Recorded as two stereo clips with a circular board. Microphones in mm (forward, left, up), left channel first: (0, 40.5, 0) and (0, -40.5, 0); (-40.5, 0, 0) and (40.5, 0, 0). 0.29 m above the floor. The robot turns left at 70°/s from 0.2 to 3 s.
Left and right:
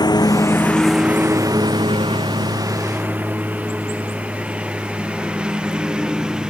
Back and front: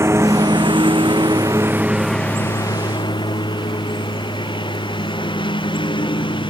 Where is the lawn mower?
55° left; by 6.5 s 170° right.